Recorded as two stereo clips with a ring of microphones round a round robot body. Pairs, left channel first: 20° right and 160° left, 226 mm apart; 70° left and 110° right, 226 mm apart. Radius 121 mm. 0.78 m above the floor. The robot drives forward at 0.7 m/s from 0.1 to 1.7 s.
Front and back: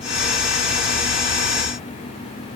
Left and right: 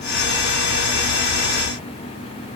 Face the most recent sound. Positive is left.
No sound to turn to.